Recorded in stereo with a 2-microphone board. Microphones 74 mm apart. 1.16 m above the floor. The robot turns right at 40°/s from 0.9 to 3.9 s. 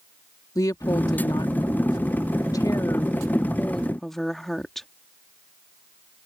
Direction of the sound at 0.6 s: 55° left.